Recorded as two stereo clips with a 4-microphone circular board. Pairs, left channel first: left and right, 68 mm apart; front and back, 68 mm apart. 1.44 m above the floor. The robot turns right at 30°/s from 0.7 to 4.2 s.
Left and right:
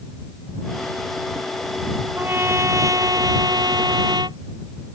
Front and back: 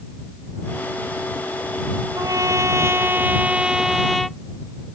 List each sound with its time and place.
2.1 s a trumpet: 150° right; by 4.4 s 85° right